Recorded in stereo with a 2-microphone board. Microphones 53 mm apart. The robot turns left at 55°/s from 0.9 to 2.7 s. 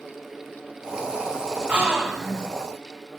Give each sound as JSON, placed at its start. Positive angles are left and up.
{"t": 1.7, "sound": "a gasp", "azimuth_deg": -150, "distance_m": 2.5}